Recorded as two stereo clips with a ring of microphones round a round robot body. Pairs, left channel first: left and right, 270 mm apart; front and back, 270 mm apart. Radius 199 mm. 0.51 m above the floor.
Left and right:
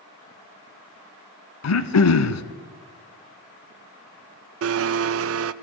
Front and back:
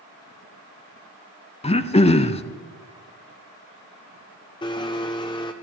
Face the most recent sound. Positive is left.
turn(degrees=-70)